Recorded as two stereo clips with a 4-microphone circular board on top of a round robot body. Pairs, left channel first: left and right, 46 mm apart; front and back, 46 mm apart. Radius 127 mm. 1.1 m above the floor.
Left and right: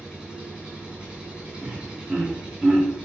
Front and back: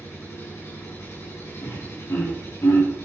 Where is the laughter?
5° right, 3.5 m.